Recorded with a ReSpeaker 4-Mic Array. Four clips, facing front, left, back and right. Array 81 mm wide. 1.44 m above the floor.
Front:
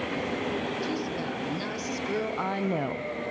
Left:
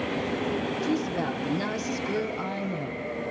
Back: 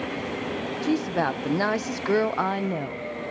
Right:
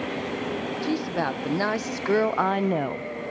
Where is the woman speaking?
155° right, 1.5 m; by 3.1 s 60° right, 0.6 m.